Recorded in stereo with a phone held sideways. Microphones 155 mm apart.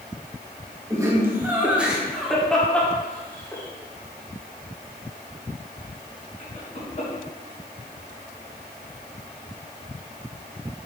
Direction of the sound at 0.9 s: 20° right (ahead or behind).